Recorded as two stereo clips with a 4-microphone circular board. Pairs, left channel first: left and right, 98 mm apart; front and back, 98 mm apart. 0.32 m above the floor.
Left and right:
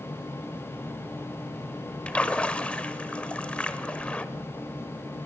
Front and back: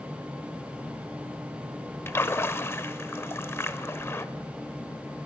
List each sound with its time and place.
2.1 s a splash: 25° left, 0.5 m